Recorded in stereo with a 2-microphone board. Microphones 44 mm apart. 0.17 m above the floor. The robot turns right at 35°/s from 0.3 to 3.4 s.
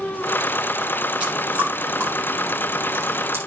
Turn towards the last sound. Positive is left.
turn(degrees=-75)  # may be behind; listen again after turning